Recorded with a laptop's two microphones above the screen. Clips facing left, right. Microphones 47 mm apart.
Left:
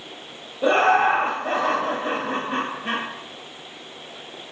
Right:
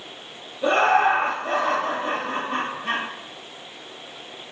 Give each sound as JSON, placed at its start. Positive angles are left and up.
{"t": 0.6, "sound": "laughter", "side_deg": 25, "distance_m": 0.9}